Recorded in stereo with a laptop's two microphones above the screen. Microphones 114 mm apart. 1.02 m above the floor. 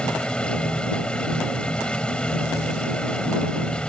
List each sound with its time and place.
0.0 s a machine running: 10° left (ahead or behind)